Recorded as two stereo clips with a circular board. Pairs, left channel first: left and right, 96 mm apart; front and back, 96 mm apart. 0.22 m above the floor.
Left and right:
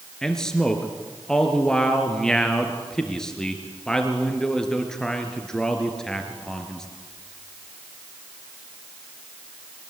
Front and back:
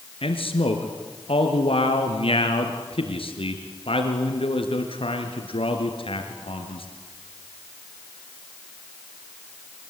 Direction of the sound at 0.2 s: 5° left.